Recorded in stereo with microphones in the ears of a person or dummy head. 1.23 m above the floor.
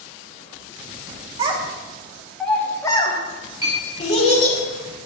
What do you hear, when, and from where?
1.4 s a child speaking: 30° right (ahead or behind), 1.2 m; by 4.6 s 50° left (ahead or behind), 2 m
3.6 s a clink: 20° right (ahead or behind), 3 m